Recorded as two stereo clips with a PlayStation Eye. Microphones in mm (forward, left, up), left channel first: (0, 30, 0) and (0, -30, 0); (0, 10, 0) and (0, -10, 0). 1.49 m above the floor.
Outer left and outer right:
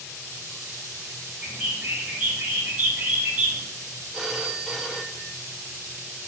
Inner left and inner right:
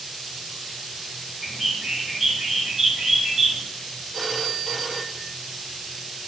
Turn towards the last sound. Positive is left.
turn(degrees=0)  # may be behind; listen again after turning